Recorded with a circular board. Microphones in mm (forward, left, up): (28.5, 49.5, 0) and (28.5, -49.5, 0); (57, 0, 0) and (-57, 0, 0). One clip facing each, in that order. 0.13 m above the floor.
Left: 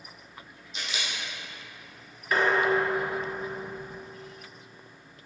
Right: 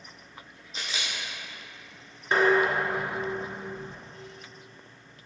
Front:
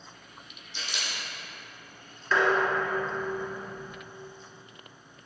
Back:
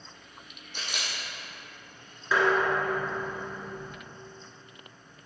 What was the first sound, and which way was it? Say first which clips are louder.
A camera shutter: even, back 1 dB; 140° right.